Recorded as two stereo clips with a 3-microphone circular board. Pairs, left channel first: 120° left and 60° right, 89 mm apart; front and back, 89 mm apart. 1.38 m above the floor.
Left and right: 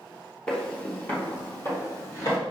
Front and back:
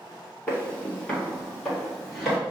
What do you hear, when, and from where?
0.5 s footsteps: 55° left, 1.5 m; by 2.4 s 95° left, 2 m